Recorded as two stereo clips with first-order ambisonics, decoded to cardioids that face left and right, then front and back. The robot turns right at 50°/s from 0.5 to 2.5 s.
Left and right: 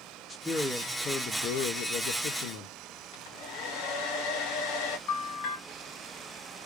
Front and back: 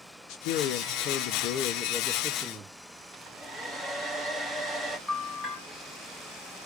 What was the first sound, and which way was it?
A man speaking, straight ahead.